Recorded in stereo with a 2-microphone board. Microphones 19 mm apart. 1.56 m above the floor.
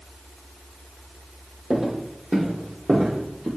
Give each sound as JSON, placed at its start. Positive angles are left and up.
{"t": 1.7, "sound": "footsteps", "side_deg": -60, "distance_m": 3.5}